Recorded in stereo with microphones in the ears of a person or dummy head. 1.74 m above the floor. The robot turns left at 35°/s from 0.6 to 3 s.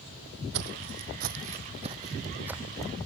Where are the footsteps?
60° right (ahead or behind); by 2.9 s centre (ahead or behind).